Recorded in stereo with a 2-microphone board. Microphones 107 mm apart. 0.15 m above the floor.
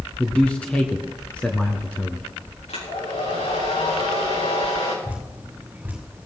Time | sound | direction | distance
0.2 | a man speaking | 15° left (ahead or behind) | 1.5 m
2.7 | a hair dryer | 80° left | 7 m
5.0 | dripping | 15° right (ahead or behind) | 7.5 m